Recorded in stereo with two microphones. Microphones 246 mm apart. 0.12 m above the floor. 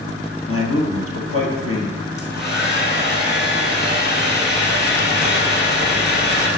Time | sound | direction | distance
0.5 | a man speaking | 65° left (ahead or behind) | 2.5 m
2.2 | a hair dryer | 45° left (ahead or behind) | 2 m